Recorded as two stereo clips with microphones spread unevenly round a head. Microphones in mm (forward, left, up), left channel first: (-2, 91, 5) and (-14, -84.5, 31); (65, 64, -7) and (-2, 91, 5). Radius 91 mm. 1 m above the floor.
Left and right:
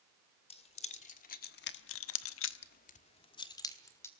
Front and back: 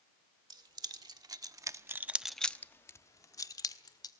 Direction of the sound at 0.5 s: 145° left.